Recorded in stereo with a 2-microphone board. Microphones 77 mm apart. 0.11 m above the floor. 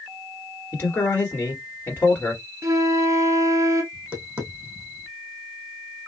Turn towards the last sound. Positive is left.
turn(degrees=-20)  # may be behind; listen again after turning